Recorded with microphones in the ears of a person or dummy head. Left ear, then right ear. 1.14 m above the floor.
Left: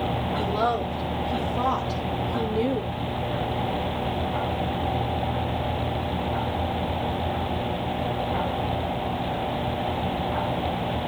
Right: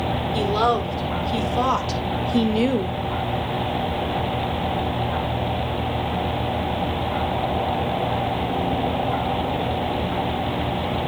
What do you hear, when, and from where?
0.3 s a woman speaking: 85° right, 3 m; by 3.0 s 65° right (ahead or behind), 0.8 m